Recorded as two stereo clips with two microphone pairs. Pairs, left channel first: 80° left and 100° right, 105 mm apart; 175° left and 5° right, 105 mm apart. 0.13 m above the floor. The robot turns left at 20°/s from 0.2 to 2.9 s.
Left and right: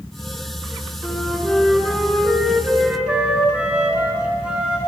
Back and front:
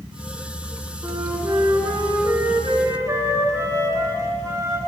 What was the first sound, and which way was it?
A flute, 10° left.